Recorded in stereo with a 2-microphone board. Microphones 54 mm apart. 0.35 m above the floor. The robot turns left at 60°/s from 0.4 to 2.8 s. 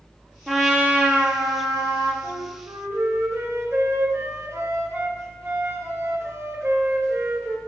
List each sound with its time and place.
0.5 s a trumpet: 5° left, 1.9 m; by 2.1 s 95° right, 1.9 m
2.2 s a flute: 90° right, 1.5 m; by 7.6 s 125° right, 1.5 m